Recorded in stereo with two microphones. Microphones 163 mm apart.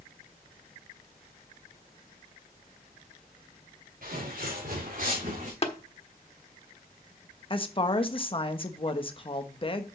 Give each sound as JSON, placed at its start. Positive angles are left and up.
{"t": 4.0, "sound": "footsteps", "side_deg": -65, "distance_m": 5.0}
{"t": 5.6, "sound": "tapping", "side_deg": 40, "distance_m": 1.3}
{"t": 7.5, "sound": "a woman speaking", "side_deg": 35, "distance_m": 1.0}